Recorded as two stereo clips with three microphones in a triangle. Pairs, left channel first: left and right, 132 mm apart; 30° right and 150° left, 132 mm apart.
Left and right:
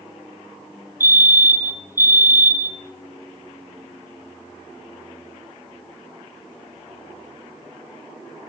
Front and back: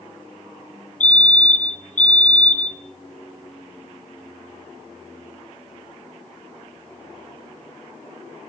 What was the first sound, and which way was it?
A fire alarm, 20° right.